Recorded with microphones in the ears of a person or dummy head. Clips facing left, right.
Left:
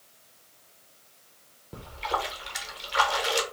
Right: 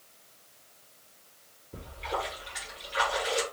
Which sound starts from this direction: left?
A splash, at 1.7 s.